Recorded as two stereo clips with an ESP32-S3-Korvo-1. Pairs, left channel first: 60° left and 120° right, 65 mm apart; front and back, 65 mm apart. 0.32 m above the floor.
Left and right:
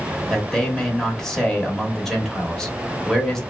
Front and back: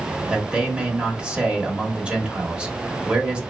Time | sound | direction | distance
0.3 | a man speaking | 135° left | 0.9 m